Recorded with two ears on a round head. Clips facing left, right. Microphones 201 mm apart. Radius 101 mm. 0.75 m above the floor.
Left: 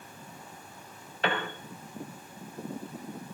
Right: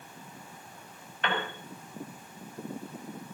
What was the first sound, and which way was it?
A piano, 30° left (ahead or behind).